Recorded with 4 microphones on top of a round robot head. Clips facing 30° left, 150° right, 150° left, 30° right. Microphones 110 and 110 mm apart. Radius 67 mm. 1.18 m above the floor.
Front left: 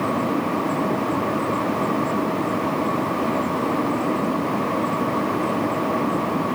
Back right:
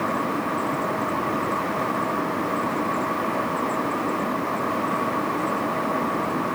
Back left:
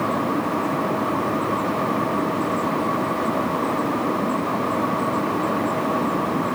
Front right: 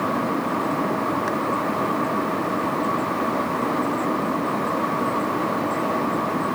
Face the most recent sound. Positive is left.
No sound to turn to.